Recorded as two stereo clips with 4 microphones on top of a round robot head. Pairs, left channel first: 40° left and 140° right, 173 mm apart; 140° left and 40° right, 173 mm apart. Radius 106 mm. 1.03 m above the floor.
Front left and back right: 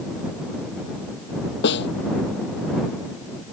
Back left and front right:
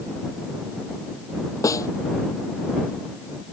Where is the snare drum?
65° left.